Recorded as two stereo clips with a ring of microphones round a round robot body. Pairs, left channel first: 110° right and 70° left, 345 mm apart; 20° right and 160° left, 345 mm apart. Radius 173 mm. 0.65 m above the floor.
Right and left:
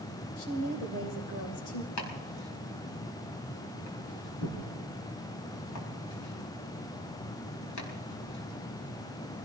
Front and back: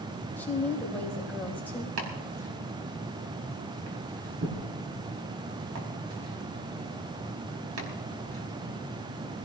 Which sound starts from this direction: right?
A woman speaking, at 0.4 s.